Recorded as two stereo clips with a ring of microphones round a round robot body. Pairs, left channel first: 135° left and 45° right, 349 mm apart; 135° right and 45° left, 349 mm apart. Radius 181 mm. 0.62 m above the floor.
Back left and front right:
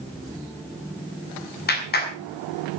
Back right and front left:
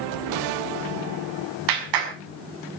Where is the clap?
70° left, 6 m.